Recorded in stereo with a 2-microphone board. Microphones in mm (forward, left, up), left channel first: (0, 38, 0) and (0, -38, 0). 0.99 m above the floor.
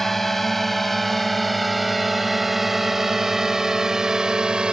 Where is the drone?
5° left (ahead or behind); by 4.8 s 10° right (ahead or behind).